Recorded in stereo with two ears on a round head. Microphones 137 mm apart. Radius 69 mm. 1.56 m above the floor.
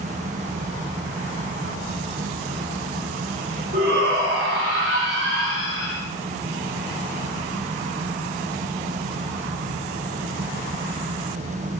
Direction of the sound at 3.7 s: 75° right (ahead or behind).